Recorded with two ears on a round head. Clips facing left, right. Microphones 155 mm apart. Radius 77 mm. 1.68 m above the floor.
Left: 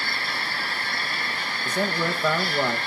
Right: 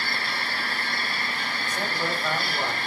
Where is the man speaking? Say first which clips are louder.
Left 5 dB; 70° left (ahead or behind), 2 m.